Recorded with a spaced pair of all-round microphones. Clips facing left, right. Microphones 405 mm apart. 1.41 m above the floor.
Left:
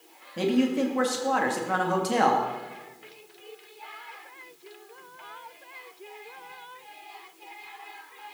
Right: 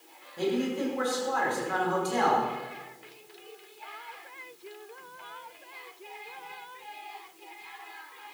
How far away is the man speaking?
About 2.5 m.